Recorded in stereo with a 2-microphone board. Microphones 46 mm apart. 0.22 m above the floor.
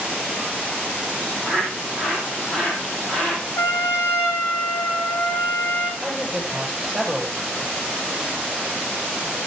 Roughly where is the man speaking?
Centre.